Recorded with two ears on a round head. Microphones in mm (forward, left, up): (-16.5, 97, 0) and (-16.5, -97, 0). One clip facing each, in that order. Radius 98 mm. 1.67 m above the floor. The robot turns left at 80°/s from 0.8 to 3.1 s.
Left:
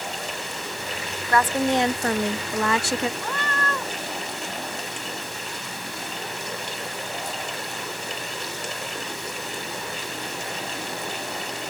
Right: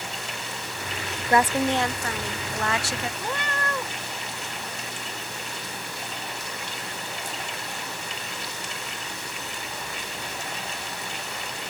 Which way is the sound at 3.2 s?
15° right (ahead or behind).